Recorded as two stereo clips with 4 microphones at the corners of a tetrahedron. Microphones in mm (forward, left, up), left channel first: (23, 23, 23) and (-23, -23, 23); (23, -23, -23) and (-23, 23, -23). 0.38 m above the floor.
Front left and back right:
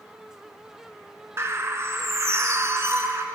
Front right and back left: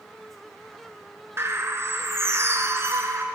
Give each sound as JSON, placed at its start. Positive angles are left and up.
{"t": 1.4, "sound": "a bird", "azimuth_deg": 180, "distance_m": 0.8}